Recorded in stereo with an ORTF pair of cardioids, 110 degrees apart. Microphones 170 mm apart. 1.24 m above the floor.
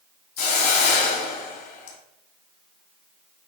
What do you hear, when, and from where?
0.4 s a hiss: 70° left, 2.5 m